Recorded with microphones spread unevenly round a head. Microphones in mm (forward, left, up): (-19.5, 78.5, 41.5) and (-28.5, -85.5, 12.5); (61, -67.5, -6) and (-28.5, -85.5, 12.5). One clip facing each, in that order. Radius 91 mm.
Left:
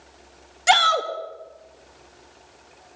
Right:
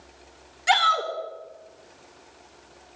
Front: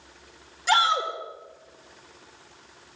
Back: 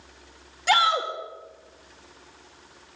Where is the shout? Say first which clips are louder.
Left 4 dB, back 1 dB; 125° left, 1.8 m.